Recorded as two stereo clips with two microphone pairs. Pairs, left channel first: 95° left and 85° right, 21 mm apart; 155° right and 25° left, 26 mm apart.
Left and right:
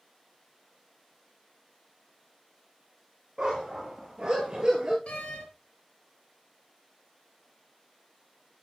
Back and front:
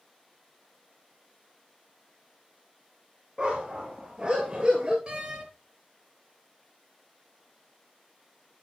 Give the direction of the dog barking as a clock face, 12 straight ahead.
1 o'clock.